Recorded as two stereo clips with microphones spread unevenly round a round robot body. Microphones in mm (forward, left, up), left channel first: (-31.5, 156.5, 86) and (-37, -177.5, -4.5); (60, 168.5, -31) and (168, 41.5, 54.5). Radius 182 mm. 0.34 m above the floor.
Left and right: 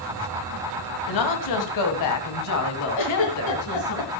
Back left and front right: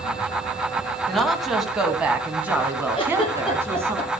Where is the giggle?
75° left, 7.5 m.